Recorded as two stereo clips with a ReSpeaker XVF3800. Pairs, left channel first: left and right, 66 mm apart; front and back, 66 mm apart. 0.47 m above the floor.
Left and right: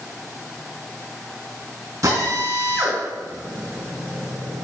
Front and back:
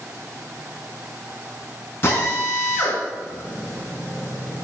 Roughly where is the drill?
Ahead right.